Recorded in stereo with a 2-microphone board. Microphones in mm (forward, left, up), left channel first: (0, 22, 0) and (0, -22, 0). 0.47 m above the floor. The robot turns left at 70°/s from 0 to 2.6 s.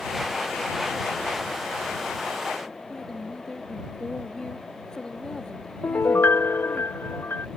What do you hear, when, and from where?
2.9 s a woman speaking: 20° left (ahead or behind)
5.8 s a piano: 65° left (ahead or behind)